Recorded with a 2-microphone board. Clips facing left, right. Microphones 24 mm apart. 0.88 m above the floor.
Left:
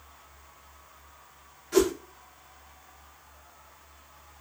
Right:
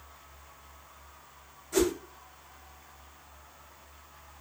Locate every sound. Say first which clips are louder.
1.7 s a whoosh: left 3 dB; 80° left, 1.7 m